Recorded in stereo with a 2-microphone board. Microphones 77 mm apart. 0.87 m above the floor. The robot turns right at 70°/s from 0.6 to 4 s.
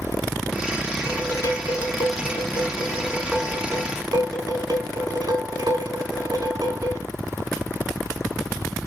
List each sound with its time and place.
1.1 s dishes clattering: 30° left, 2.5 m; by 7.0 s 120° right, 2.5 m